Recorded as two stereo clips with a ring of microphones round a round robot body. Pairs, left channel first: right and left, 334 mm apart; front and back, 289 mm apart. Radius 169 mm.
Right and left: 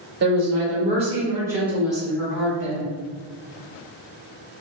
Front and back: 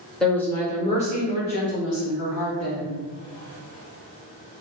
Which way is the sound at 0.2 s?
85° left.